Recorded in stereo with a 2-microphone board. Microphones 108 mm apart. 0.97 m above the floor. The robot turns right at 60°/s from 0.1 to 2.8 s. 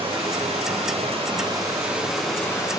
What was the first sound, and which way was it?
Running water, 125° right.